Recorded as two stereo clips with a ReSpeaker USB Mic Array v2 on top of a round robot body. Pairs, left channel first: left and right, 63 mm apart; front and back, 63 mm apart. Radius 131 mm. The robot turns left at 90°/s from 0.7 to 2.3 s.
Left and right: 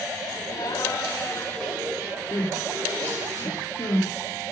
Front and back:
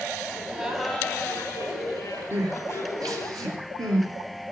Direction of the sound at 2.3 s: 150° left.